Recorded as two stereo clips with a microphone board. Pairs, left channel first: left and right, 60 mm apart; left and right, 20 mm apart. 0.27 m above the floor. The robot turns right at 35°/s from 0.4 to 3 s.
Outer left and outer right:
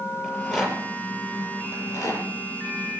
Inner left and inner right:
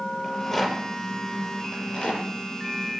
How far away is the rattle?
About 6.5 m.